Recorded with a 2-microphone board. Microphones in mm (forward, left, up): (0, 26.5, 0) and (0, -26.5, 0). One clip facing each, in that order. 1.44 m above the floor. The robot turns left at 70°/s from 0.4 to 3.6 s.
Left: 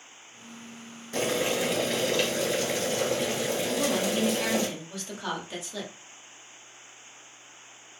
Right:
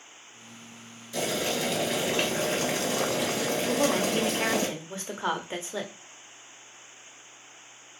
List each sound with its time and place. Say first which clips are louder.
1.1 s boiling: left 2 dB; 45° left, 1.8 m; by 4.7 s 130° right, 1.8 m
3.7 s a woman speaking: right 3 dB; 30° right (ahead or behind), 0.9 m